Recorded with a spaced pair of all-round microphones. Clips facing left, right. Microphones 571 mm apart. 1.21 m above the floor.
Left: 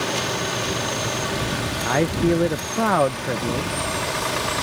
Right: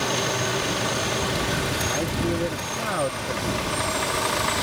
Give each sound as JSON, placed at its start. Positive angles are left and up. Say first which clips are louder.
{"t": 1.9, "sound": "a man speaking", "louder": "left 9 dB", "side_deg": 70}